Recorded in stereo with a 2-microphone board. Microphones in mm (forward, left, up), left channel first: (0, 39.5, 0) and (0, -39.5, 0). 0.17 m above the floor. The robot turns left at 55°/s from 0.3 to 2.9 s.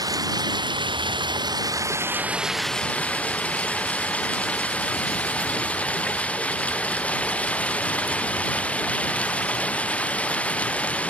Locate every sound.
0.0 s running water: 55° right; by 11.1 s 165° left